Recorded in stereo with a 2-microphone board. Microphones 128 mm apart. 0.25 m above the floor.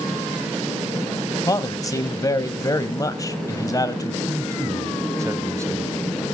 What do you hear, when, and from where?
1.5 s a man speaking: 25° left (ahead or behind), 1.1 m
4.3 s a man speaking: 25° right (ahead or behind), 1.0 m